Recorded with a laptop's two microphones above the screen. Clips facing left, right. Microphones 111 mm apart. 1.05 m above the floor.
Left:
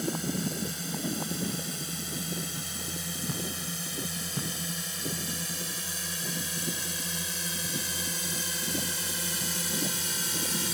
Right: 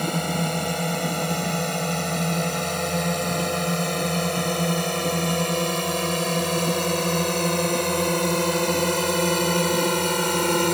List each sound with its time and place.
0.0 s a drone: 80° right; by 10.7 s 70° right (ahead or behind)